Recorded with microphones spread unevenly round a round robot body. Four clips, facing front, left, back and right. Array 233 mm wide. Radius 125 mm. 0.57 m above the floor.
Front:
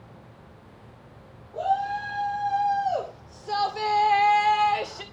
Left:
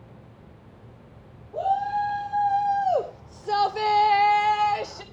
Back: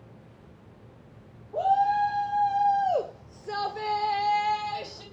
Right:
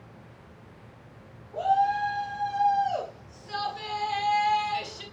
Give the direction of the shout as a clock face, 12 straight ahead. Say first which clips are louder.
Even, back 3 dB; 7 o'clock.